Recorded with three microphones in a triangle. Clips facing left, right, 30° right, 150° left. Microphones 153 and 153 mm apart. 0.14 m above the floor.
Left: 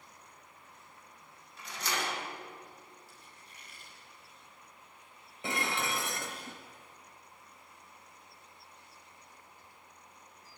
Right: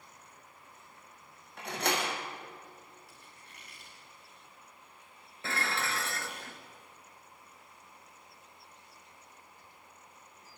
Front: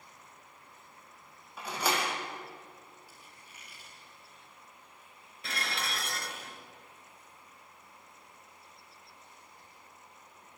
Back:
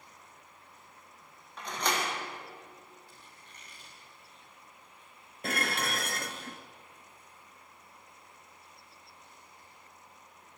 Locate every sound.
1.6 s a door slam: 110° right, 4 m
3.1 s a squeak: 115° right, 9 m
5.4 s dishes clattering: 155° left, 1.4 m